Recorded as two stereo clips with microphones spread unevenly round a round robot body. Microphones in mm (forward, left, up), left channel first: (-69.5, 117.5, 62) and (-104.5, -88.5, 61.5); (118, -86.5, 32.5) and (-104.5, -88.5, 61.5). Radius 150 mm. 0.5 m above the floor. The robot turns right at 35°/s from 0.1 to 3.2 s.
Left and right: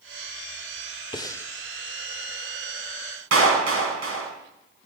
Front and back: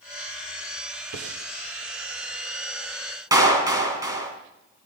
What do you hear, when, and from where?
1.1 s breathing: 150° left, 1.0 m; by 1.5 s 160° left, 1.0 m
3.3 s a clap: 105° right, 5 m